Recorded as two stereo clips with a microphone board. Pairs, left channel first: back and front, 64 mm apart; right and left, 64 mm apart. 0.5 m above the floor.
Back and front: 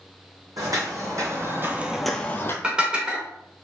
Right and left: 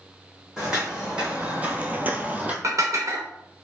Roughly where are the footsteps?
Ahead.